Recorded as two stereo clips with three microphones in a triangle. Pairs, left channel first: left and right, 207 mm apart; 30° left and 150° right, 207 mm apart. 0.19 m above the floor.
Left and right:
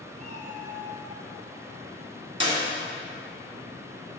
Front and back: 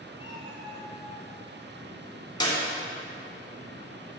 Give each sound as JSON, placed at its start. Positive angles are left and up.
{"t": 0.2, "sound": "a cat meowing", "azimuth_deg": -175, "distance_m": 2.5}
{"t": 2.4, "sound": "a clap", "azimuth_deg": -35, "distance_m": 1.8}